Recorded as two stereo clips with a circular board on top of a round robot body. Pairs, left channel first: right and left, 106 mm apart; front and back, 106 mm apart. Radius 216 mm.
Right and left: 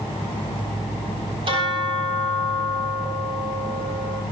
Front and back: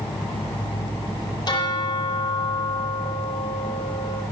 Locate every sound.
1.5 s a bell: 50° left, 7.5 m